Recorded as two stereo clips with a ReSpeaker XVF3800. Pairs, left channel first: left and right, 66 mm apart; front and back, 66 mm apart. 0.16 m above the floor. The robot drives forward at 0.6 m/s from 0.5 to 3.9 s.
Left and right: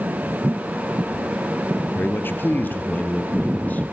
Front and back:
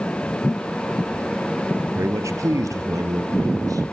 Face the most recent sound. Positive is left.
turn(degrees=155)